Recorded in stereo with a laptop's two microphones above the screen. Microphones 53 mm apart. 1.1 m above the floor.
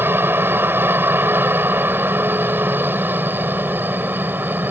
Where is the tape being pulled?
I don't hear tape being pulled.